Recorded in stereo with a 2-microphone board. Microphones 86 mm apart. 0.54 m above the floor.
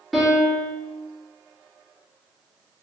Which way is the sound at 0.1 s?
5° left (ahead or behind).